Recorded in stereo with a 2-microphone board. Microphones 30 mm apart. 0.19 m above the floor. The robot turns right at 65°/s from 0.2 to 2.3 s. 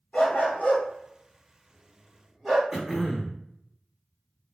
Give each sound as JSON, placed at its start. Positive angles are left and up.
{"t": 0.1, "sound": "a dog barking", "side_deg": 55, "distance_m": 1.9}
{"t": 2.7, "sound": "throat clearing", "side_deg": -15, "distance_m": 0.7}